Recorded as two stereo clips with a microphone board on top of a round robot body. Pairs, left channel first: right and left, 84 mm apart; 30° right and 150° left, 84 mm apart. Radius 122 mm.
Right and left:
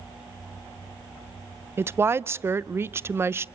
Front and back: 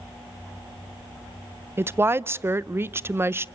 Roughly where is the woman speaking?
Behind left.